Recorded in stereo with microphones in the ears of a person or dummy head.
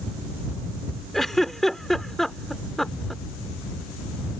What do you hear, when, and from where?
1.1 s a giggle: 5° left (ahead or behind)